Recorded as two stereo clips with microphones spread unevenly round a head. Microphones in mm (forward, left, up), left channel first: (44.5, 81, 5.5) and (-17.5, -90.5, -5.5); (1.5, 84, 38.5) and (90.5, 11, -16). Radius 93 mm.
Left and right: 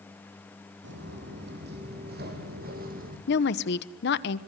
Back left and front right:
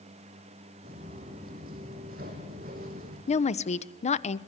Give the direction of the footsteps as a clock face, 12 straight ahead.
3 o'clock.